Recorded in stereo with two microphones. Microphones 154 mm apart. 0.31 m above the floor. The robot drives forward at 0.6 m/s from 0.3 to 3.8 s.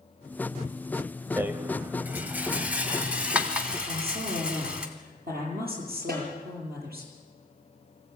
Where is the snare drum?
75° right (ahead or behind), 5.5 m.